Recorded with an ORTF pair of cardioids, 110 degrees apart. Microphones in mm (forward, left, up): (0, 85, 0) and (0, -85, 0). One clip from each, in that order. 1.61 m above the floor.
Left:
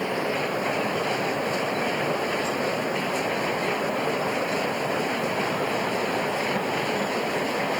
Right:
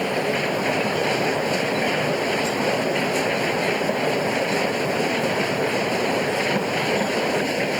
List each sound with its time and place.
0.0 s a machine running: 35° right